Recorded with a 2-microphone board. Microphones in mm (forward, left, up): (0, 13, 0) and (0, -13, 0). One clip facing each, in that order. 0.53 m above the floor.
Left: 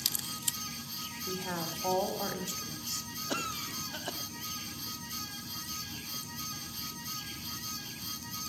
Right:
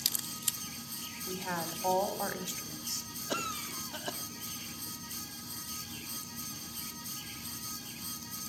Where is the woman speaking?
15° right (ahead or behind), 1.4 m.